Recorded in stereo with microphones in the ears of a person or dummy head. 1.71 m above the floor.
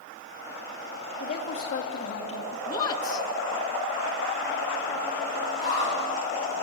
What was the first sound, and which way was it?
A woman speaking, 40° left (ahead or behind).